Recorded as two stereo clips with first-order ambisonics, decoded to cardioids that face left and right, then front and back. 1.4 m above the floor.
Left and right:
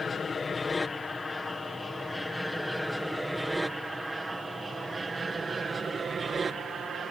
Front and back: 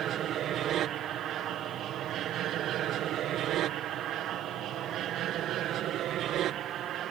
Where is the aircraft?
155° left; by 7.1 s 150° right.